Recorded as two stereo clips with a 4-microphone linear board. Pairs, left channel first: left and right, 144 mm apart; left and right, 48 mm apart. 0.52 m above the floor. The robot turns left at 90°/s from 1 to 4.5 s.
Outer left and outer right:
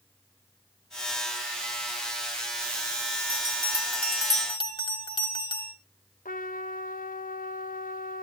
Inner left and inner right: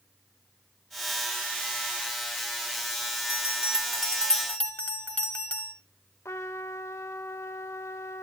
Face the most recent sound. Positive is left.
turn(degrees=75)  # may be behind; listen again after turning